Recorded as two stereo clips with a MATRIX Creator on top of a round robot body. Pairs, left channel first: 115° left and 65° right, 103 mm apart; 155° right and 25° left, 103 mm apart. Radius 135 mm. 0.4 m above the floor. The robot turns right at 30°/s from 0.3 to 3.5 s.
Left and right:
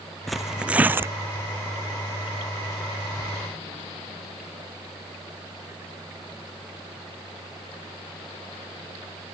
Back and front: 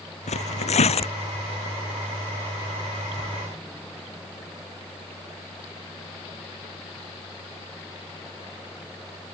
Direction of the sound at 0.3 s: 160° right.